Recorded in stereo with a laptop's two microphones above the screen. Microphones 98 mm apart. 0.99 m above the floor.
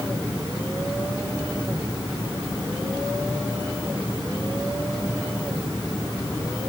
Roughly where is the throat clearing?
I don't hear throat clearing.